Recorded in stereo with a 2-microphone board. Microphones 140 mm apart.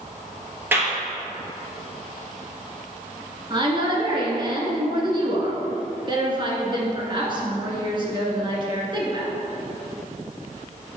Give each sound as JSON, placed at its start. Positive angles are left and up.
{"t": 0.7, "sound": "a clap", "side_deg": -15, "distance_m": 1.9}
{"t": 3.5, "sound": "a woman speaking", "side_deg": -35, "distance_m": 1.7}